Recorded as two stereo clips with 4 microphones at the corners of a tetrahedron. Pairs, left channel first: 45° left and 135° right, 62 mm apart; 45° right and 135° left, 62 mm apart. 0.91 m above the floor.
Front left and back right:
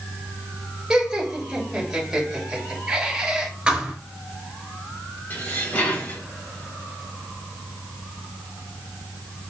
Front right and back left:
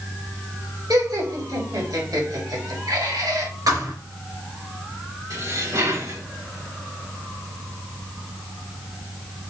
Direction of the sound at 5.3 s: 105° left.